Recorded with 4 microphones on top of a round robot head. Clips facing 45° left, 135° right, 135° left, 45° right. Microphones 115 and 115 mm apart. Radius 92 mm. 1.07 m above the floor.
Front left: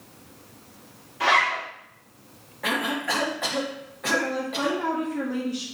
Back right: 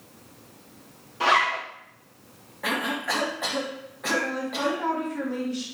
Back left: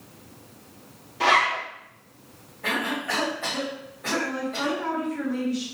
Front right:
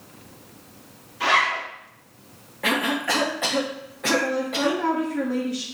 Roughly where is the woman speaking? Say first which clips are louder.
Even, front right 2 dB; ahead right.